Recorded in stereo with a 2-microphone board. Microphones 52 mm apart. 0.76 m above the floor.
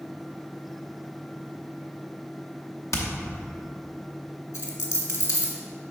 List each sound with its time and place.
2.9 s hammering: 70° left (ahead or behind), 0.9 m
4.5 s a dropped coin: 65° left (ahead or behind), 1.5 m